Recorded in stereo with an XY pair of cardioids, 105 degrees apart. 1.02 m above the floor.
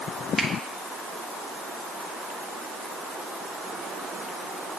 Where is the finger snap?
25° right, 2 m.